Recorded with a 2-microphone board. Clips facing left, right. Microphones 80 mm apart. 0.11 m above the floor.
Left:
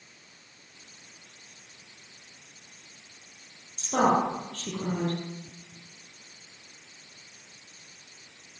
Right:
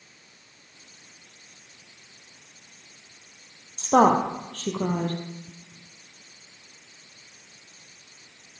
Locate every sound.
3.8 s a woman speaking: 55° right (ahead or behind), 2.5 m